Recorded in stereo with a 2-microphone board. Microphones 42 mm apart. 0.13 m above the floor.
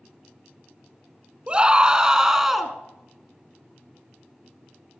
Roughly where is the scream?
Right.